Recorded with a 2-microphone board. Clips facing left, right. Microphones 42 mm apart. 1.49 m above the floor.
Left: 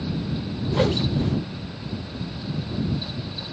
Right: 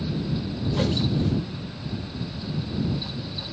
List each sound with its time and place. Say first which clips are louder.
0.7 s a whoosh: left 3 dB; 25° left (ahead or behind)